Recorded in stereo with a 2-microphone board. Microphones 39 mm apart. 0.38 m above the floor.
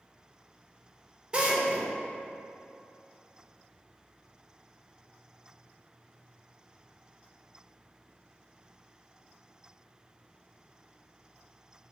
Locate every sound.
1.3 s a drill: 25° right (ahead or behind), 0.6 m